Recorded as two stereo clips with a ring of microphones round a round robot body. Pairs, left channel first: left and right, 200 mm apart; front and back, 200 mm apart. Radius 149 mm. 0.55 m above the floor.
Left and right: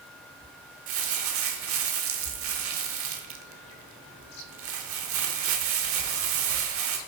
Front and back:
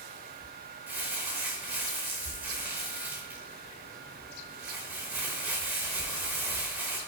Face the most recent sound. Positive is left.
turn(degrees=-95)